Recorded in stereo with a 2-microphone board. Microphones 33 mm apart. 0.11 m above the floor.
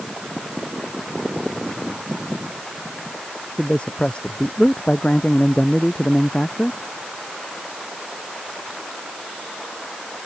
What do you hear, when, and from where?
3.6 s a man speaking: 35° left (ahead or behind)